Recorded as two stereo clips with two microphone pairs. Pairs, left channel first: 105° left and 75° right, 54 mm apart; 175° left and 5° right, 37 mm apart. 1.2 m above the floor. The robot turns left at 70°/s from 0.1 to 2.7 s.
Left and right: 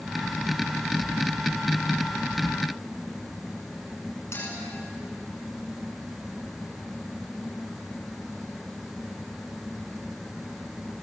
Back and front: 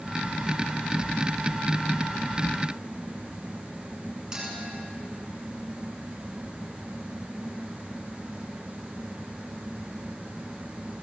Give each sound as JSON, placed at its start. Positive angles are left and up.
{"t": 4.3, "sound": "a clink", "azimuth_deg": 65, "distance_m": 9.5}